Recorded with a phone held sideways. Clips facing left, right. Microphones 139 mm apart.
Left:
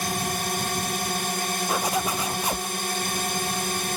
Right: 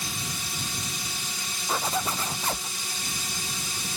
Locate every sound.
0.0 s a drone: 60° left (ahead or behind)
1.7 s a zipper: 15° left (ahead or behind)